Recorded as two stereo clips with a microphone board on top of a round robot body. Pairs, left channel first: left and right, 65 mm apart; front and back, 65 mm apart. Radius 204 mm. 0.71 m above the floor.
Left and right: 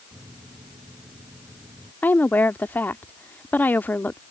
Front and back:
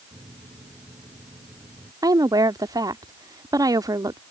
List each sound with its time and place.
0.1 s a microwave: 145° right
2.0 s a woman speaking: 155° left